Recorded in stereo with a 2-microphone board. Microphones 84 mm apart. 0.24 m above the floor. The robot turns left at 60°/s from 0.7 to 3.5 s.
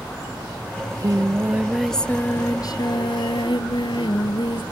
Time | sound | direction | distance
0.8 | singing | 120° right | 1.0 m